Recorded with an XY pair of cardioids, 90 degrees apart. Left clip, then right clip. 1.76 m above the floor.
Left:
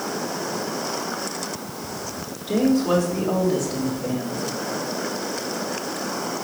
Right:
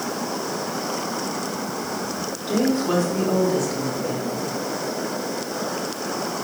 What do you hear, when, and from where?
2.5 s a woman speaking: 15° left, 4 m; by 4.5 s 40° left, 3.5 m